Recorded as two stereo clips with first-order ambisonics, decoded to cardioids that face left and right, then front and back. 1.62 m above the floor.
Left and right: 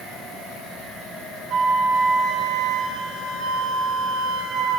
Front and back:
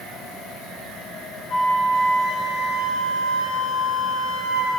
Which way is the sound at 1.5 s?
50° right.